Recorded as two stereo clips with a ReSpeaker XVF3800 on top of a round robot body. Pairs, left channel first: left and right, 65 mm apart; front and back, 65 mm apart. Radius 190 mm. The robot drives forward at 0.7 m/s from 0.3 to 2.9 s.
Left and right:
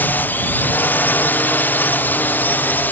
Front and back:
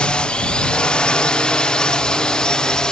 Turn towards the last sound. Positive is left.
turn(degrees=65)